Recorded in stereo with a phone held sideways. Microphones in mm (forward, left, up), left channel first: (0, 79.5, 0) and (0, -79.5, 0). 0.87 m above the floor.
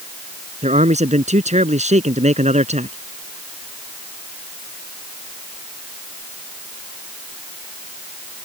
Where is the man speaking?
45° right (ahead or behind).